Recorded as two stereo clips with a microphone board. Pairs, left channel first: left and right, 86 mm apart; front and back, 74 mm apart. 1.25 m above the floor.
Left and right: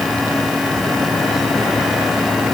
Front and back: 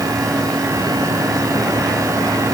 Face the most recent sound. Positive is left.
No sound to turn to.